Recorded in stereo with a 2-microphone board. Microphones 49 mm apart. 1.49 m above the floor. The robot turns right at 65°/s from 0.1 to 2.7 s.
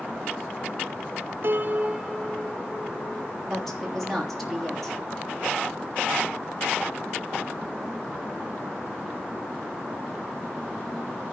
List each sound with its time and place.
1.4 s a piano: 55° right, 0.7 m; by 3.3 s 25° left, 0.7 m
3.5 s a woman speaking: centre (ahead or behind), 3.5 m